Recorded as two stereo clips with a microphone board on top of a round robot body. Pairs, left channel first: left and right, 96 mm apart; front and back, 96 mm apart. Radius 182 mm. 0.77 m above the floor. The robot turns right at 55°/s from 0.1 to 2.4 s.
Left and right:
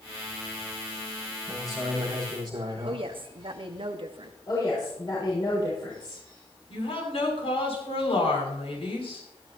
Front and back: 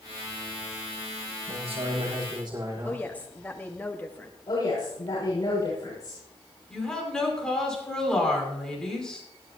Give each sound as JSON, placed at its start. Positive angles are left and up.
{"t": 1.5, "sound": "a man speaking", "azimuth_deg": 170, "distance_m": 7.0}
{"t": 2.8, "sound": "a woman speaking", "azimuth_deg": -75, "distance_m": 1.5}
{"t": 4.5, "sound": "a woman speaking", "azimuth_deg": 50, "distance_m": 6.5}
{"t": 6.7, "sound": "a woman speaking", "azimuth_deg": 85, "distance_m": 6.0}